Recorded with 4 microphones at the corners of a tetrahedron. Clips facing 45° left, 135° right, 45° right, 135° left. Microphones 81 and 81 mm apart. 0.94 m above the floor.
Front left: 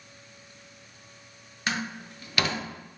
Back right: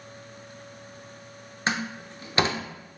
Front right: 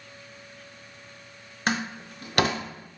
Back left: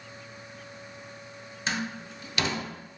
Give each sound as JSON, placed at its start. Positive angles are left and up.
{"t": 1.7, "sound": "a door slam", "azimuth_deg": -75, "distance_m": 0.6}